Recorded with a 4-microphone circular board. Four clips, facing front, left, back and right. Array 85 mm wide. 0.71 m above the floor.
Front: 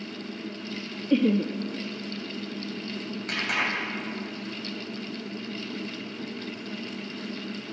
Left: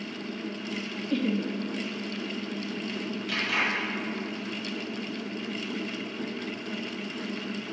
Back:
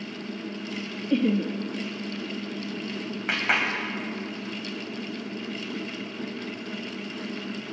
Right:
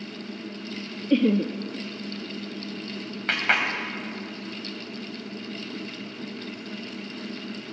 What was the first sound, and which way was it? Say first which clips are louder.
Laughter: right 7 dB, front 1 dB; 70° right.